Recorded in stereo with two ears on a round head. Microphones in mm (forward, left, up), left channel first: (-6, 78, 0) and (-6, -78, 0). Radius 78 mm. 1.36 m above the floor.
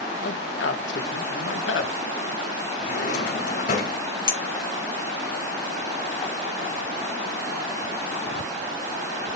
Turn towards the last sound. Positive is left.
turn(degrees=25)  # may be behind; listen again after turning